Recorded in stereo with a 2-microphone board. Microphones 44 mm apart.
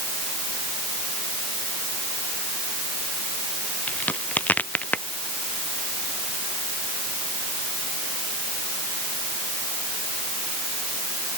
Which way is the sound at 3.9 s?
35° left (ahead or behind).